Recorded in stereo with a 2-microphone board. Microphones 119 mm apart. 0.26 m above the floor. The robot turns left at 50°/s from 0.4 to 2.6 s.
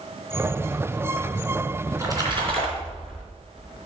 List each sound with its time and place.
1.9 s a splash: 20° right, 3 m; by 3.2 s 60° right, 3 m